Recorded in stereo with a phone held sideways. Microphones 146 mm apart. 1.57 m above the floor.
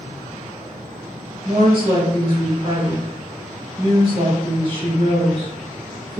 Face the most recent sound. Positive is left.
turn(degrees=-40)  # may be behind; listen again after turning